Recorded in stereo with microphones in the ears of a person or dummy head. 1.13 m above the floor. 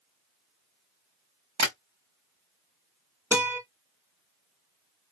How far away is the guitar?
About 2 m.